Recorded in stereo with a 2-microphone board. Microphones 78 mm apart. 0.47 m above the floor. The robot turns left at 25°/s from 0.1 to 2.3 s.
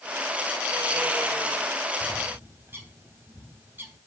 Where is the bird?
25° right (ahead or behind), 3 m; by 4.0 s 30° right (ahead or behind), 3 m.